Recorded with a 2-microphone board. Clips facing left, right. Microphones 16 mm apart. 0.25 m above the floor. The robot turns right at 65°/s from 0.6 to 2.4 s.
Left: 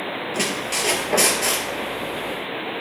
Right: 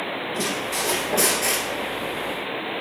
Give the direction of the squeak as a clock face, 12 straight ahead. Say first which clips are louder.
Left 3 dB; 8 o'clock.